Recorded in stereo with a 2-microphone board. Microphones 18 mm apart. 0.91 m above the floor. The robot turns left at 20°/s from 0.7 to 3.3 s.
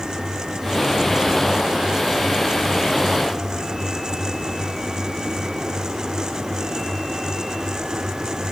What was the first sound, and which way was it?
Only background noise.